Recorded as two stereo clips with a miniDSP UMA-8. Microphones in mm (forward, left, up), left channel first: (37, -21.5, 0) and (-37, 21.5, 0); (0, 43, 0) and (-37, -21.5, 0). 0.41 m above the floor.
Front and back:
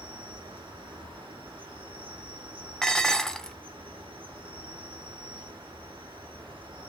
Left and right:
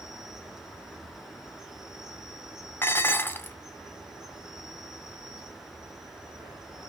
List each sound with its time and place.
0.0 s an insect: 160° left, 1.5 m
2.8 s dishes clattering: 50° left, 0.6 m